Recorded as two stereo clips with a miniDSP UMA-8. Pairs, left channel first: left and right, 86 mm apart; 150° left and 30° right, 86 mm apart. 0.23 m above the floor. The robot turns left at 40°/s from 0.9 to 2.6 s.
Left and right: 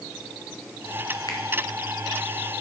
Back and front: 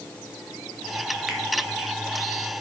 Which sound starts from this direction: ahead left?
A finger snap, at 1.3 s.